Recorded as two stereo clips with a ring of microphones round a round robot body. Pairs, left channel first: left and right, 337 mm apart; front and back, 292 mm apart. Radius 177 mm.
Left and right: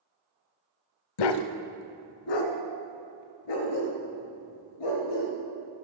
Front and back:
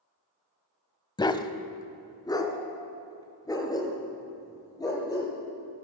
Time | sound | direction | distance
1.2 | a dog barking | 75° left | 0.6 m